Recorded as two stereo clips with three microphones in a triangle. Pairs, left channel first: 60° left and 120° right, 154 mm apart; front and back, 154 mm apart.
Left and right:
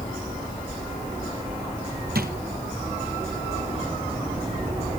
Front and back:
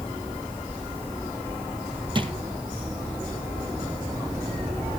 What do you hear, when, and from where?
2.1 s a drawer: 125° right, 1.6 m